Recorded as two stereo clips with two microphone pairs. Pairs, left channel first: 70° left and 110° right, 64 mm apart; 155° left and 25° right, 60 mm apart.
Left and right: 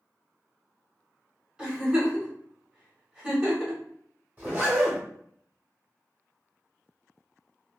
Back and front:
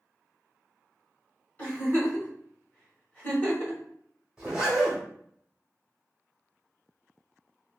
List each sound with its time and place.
1.6 s a giggle: straight behind, 1.4 m
4.4 s a zipper: 85° right, 1.3 m